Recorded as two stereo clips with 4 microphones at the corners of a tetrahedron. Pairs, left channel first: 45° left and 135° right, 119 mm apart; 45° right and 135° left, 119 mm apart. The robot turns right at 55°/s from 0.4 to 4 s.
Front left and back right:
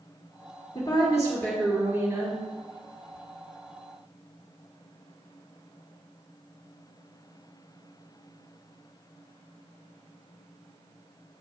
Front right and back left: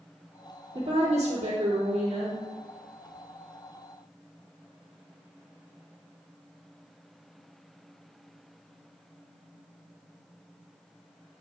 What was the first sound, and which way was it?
A woman speaking, 85° left.